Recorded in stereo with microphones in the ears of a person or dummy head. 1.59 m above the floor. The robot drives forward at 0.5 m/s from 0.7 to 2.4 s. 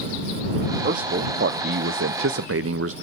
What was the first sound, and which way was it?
A man speaking, 45° right (ahead or behind).